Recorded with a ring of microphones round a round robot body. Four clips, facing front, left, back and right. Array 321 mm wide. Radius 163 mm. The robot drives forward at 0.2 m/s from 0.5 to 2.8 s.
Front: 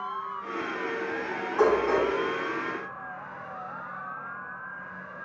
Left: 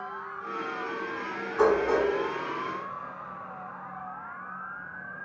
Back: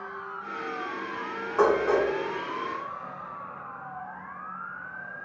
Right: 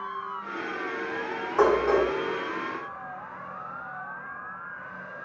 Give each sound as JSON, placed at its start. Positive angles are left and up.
{"t": 1.6, "sound": "dishes clattering", "azimuth_deg": -115, "distance_m": 1.5}